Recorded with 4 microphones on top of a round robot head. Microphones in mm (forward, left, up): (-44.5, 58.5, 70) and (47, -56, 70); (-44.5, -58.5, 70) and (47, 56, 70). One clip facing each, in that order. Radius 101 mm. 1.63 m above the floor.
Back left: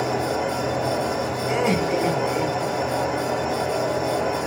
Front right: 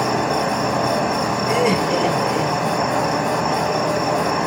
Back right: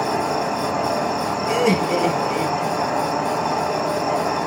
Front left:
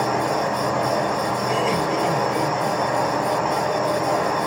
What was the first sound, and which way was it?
An insect, 60° right.